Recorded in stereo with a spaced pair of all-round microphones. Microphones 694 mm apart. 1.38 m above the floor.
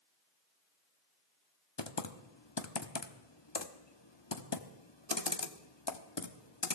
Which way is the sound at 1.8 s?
35° left (ahead or behind).